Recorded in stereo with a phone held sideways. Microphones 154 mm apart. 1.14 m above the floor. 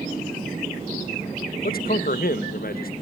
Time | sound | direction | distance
1.6 | a man speaking | 75° left (ahead or behind) | 1.2 m